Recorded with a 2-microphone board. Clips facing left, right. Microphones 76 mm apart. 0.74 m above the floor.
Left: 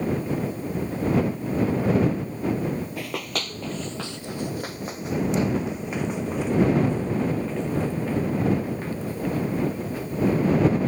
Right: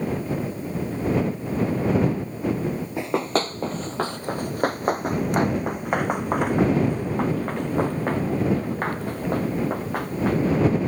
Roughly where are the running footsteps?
Right.